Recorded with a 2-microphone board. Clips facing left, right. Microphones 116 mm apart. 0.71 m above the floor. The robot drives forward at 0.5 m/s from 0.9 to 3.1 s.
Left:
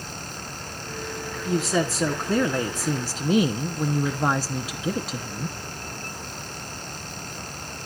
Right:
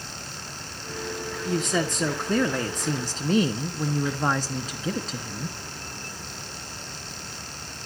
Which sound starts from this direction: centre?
A woman speaking, at 1.4 s.